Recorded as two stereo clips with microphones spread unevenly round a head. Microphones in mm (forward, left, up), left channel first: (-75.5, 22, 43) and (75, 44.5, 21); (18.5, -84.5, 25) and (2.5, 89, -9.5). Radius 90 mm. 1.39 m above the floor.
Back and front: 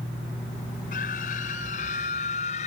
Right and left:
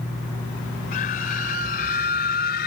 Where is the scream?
130° right; by 2.7 s 120° right.